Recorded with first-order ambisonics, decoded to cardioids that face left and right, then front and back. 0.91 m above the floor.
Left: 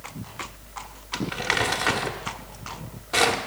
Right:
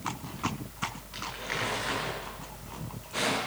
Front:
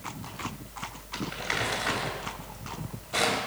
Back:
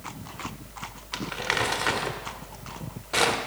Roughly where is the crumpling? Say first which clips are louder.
Left 12 dB, back 4 dB; behind left.